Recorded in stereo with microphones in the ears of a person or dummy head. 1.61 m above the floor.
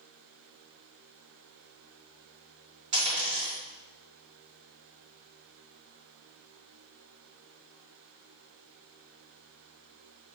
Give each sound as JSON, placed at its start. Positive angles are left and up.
{"t": 2.9, "sound": "a dropped coin", "side_deg": -60, "distance_m": 1.9}